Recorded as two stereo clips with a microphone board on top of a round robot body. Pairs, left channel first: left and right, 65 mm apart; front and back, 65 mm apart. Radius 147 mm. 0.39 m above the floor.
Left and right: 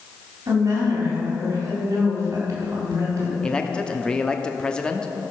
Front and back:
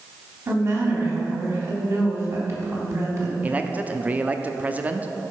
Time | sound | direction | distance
0.5 | a woman speaking | 135° right | 4 m
3.4 | a man speaking | 150° left | 0.9 m